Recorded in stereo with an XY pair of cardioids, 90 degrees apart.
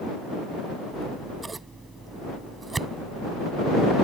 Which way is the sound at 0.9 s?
30° right.